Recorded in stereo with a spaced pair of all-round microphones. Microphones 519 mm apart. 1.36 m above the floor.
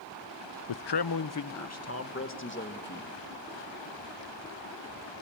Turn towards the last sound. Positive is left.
turn(degrees=20)  # may be behind; listen again after turning